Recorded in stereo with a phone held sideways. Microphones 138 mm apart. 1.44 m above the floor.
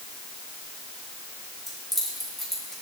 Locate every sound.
1.7 s keys jangling: centre (ahead or behind), 6.5 m